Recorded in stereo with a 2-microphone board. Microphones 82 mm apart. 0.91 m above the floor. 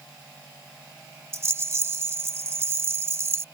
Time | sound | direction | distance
1.3 | a rattle | 35° right (ahead or behind) | ?